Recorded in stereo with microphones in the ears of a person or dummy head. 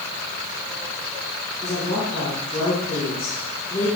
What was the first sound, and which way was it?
A woman speaking, 25° left (ahead or behind).